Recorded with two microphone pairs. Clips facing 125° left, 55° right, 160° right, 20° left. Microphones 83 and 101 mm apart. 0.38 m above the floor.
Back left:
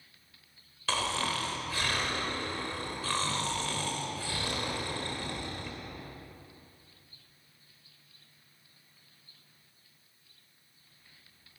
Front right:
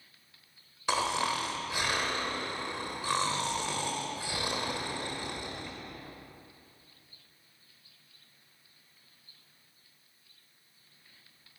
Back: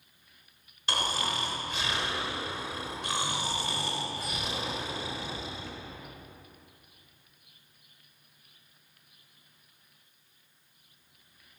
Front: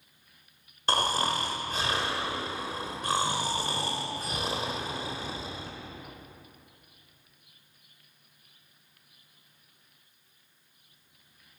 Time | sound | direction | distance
0.9 | snoring | 10° left | 1.3 m